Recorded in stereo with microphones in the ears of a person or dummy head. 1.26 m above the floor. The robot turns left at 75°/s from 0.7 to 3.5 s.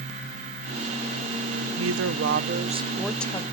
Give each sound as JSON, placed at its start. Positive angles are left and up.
{"t": 1.8, "sound": "a woman speaking", "azimuth_deg": -80, "distance_m": 0.5}